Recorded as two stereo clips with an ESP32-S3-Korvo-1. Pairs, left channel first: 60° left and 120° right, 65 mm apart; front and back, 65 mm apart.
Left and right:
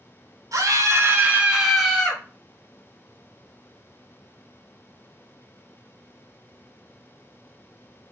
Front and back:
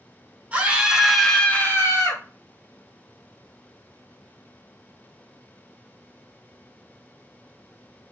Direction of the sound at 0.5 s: 120° right.